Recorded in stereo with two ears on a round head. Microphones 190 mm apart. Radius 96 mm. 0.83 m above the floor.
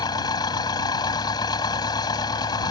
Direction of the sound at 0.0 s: 20° left (ahead or behind).